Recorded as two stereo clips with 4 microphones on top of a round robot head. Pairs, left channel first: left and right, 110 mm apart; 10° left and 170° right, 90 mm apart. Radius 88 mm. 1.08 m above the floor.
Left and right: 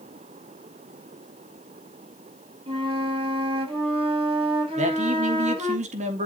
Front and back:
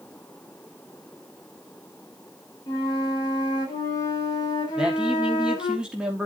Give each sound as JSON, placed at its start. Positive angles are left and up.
{"t": 2.7, "sound": "a flute", "azimuth_deg": -50, "distance_m": 5.0}
{"t": 4.8, "sound": "a man speaking", "azimuth_deg": -90, "distance_m": 2.5}